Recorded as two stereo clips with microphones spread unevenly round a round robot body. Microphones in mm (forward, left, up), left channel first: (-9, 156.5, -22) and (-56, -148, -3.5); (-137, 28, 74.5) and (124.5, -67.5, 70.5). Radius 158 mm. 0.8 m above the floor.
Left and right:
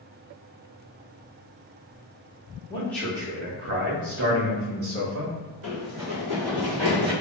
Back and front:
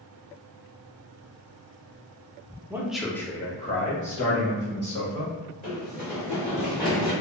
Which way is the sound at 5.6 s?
130° right.